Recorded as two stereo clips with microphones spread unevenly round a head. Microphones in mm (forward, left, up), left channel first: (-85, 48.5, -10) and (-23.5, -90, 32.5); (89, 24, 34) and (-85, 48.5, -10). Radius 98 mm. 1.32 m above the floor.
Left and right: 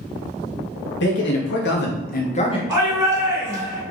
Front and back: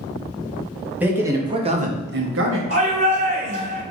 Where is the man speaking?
90° left, 1.2 m; by 2.6 s 175° left, 0.7 m.